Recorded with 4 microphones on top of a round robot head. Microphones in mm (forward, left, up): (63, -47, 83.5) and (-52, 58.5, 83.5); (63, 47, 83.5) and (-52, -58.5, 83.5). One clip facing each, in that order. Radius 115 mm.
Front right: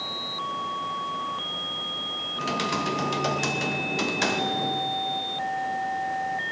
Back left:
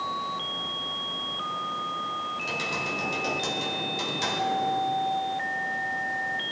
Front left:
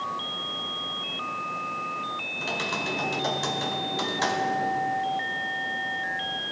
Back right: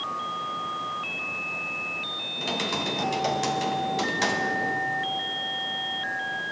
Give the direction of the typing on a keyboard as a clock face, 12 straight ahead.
2 o'clock.